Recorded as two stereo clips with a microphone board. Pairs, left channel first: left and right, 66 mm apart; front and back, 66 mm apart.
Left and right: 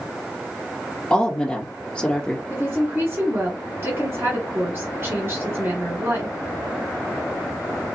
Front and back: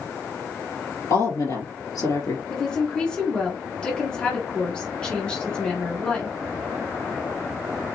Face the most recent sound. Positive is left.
turn(degrees=-70)